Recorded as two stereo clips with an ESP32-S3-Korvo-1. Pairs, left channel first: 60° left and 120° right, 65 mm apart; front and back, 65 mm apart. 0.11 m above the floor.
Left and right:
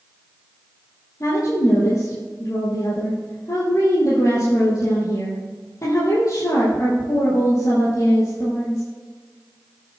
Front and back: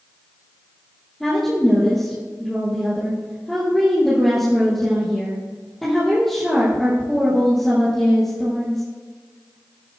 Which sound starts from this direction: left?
A woman speaking, at 1.2 s.